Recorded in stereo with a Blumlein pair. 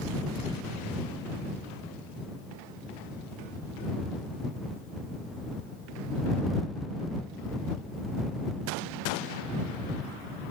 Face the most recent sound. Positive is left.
No sound to turn to.